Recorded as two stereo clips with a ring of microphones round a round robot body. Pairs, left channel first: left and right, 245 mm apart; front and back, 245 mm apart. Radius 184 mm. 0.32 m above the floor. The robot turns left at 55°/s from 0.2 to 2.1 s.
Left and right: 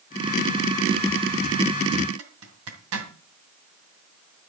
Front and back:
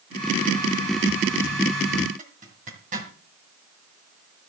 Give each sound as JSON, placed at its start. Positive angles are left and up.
{"t": 2.2, "sound": "a zipper", "azimuth_deg": -115, "distance_m": 2.0}